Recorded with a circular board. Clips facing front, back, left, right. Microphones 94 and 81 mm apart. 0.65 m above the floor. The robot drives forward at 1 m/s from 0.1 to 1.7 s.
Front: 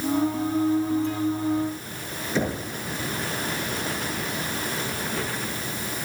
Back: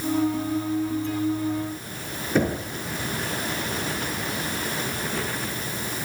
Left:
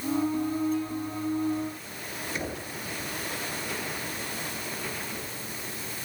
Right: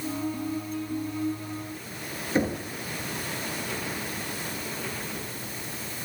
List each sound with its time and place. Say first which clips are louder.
2.4 s knocking: back 4 dB, right 10 dB; 145° right, 7 m